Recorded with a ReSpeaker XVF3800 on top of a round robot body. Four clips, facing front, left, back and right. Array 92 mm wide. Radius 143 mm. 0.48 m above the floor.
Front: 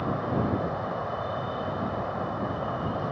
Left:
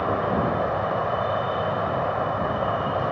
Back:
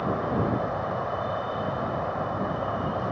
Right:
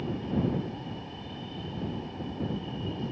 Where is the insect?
95° left.